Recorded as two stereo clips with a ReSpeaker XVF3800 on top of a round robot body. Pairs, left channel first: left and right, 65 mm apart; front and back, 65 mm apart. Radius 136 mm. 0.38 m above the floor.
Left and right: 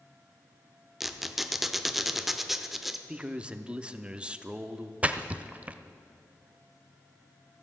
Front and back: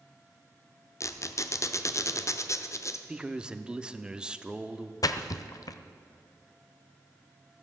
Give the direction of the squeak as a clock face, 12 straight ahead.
12 o'clock.